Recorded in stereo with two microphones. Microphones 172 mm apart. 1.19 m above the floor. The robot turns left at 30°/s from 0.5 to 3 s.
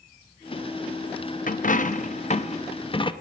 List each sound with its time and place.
1.5 s a dropped coin: 85° left, 0.6 m; by 3.1 s 40° left, 0.6 m